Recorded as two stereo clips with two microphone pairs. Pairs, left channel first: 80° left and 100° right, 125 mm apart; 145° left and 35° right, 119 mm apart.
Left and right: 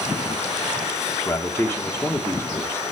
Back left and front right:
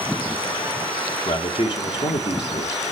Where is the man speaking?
140° left, 1.6 m.